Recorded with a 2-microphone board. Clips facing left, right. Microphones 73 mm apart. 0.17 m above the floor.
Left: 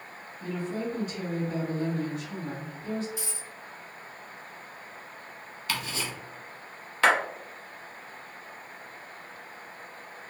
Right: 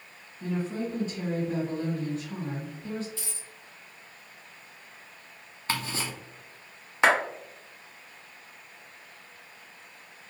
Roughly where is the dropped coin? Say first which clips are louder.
Left 4 dB; centre.